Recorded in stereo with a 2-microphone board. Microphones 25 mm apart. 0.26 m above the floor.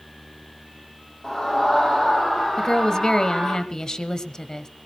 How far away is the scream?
About 9 m.